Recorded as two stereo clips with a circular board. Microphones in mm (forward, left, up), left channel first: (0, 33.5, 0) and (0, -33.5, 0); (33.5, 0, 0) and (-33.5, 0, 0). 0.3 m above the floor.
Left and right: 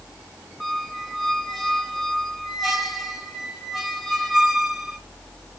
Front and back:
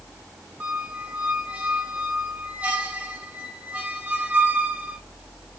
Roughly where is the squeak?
Behind.